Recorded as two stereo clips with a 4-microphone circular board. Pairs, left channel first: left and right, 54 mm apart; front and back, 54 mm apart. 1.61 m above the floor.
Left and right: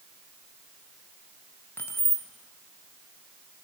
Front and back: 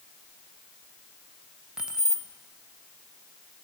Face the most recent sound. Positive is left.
turn(degrees=105)